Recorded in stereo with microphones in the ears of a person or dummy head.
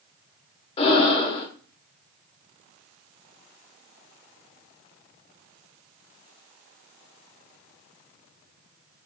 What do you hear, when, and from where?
0.8 s breathing: 35° left (ahead or behind), 0.6 m